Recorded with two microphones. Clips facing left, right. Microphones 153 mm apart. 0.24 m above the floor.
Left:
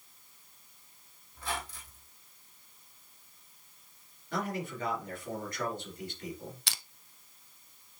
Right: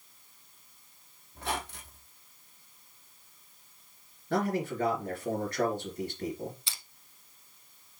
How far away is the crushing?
About 0.6 m.